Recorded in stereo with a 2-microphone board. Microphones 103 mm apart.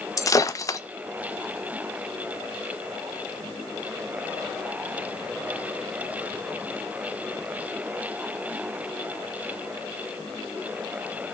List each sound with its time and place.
0.2 s breaking glass: 35° left (ahead or behind), 0.7 m